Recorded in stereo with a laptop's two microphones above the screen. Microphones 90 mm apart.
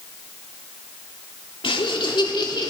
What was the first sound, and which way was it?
Laughter, 75° left (ahead or behind).